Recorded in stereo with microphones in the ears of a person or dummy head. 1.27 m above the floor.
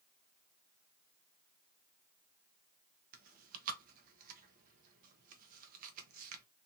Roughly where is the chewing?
Right.